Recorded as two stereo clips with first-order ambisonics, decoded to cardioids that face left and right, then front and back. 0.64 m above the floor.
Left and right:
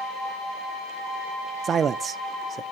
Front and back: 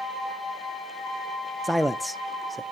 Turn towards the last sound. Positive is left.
turn(degrees=-95)